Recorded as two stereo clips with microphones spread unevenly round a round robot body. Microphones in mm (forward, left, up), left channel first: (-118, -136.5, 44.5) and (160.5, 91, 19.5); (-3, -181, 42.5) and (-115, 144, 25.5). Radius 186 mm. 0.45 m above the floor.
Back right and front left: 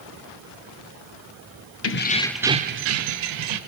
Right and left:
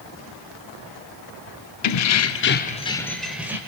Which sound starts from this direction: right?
Keys jangling, at 1.8 s.